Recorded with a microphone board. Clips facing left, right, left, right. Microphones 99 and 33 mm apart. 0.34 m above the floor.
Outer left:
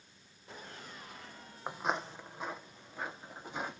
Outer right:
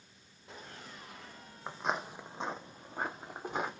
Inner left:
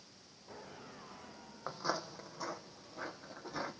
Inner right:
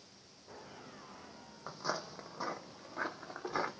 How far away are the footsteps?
About 0.5 m.